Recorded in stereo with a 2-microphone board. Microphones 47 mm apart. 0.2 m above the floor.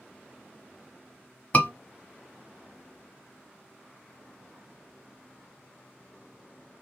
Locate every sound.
1.5 s a scream: 30° left (ahead or behind), 1.2 m